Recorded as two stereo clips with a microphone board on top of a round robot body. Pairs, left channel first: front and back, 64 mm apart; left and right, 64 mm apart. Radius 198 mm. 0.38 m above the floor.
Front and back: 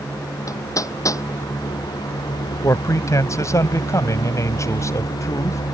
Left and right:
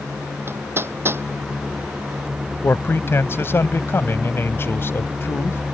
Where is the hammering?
35° right.